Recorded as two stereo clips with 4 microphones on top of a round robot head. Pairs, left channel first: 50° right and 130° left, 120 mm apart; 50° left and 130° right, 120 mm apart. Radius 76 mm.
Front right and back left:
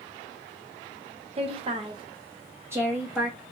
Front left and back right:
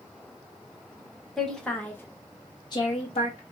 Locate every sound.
1.4 s a woman speaking: 135° left, 1.6 m; by 3.4 s 40° left, 1.5 m